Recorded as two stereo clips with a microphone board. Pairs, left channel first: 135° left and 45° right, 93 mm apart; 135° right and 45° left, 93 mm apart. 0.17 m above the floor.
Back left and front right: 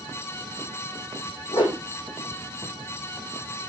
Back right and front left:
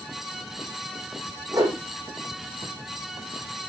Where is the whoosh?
100° left, 8 m.